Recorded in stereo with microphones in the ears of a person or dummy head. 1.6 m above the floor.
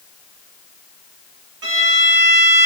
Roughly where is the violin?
Right.